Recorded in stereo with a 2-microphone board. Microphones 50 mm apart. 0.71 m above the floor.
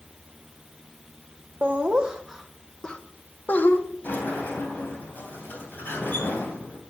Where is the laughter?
30° right (ahead or behind), 1.2 m; by 3.8 s 45° left (ahead or behind), 1.3 m.